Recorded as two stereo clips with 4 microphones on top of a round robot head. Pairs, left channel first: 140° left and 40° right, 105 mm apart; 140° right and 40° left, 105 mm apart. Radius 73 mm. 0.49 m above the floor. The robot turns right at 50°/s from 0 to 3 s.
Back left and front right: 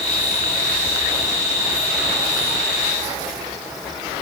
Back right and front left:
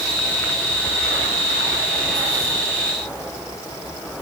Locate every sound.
Only background noise.